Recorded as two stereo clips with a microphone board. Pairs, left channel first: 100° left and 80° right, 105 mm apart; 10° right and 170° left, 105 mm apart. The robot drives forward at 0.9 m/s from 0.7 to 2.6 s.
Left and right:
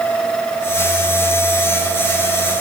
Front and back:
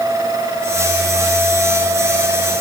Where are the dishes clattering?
No dishes clattering in this recording.